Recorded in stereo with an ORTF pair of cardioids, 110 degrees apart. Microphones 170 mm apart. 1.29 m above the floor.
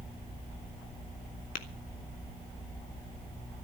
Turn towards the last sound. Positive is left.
turn(degrees=50)